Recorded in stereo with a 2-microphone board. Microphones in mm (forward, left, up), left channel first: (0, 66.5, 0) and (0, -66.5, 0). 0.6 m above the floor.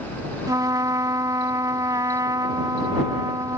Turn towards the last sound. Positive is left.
turn(degrees=-30)  # may be behind; listen again after turning